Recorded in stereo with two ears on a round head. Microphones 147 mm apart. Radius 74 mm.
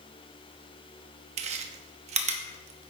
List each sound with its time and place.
1.4 s chewing: 40° right (ahead or behind), 1.0 m